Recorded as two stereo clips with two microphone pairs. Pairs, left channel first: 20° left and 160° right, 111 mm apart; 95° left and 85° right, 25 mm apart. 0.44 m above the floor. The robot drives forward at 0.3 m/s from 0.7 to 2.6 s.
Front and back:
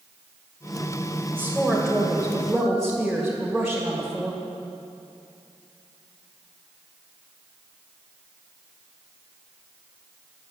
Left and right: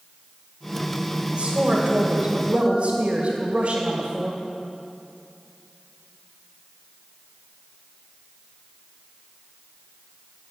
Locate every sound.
1.3 s a woman speaking: 60° right, 2 m; by 4.4 s 70° right, 2 m